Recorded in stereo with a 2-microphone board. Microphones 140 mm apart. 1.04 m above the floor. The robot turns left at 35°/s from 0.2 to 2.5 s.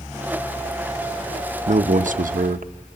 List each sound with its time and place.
1.7 s a man speaking: 55° right (ahead or behind), 0.8 m; by 2.7 s 75° right (ahead or behind), 0.8 m